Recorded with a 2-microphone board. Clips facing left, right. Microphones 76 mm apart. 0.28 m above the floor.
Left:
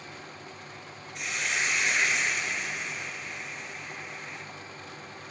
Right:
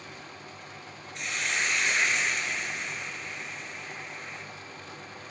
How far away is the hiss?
About 1.7 m.